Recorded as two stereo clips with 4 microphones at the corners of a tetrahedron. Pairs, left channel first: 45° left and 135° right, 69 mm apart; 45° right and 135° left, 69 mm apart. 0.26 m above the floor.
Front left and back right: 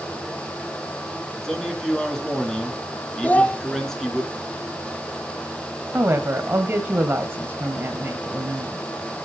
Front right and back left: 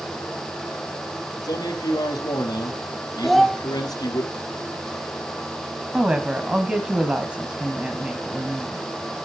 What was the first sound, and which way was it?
A man speaking, 35° right.